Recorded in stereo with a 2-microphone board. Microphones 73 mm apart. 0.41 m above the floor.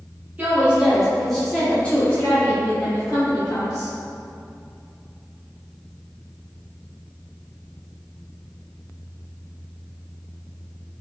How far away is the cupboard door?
No cupboard door in this recording.